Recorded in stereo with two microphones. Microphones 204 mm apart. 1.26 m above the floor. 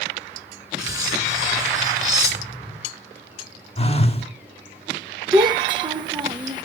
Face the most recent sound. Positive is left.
turn(degrees=-20)  # may be behind; listen again after turning